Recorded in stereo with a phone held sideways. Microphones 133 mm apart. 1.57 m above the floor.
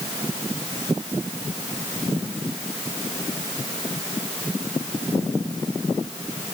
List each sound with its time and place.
Only background noise.